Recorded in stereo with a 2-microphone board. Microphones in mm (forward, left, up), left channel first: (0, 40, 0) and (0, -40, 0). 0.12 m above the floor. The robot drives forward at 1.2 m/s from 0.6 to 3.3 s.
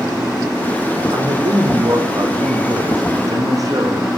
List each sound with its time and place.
1.1 s a man speaking: 65° right (ahead or behind), 6 m; by 4.2 s 45° right (ahead or behind), 7.5 m